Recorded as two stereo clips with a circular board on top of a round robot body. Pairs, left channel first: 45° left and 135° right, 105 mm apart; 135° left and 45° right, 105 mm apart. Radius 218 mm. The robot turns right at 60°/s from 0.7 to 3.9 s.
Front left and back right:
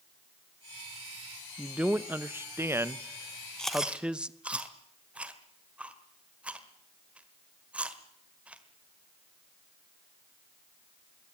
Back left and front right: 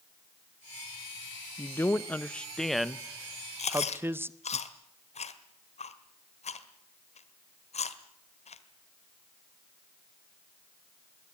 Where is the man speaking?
150° left, 1.1 m; by 4.6 s 70° right, 1.1 m.